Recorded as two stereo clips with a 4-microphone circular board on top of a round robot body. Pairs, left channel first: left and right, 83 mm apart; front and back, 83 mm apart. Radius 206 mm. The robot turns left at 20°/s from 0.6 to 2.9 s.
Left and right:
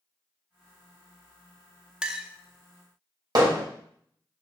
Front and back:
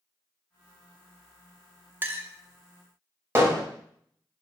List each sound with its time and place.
2.0 s a clink: 155° right, 1.0 m; by 2.3 s 160° right, 1.0 m
3.4 s hammering: 120° right, 2 m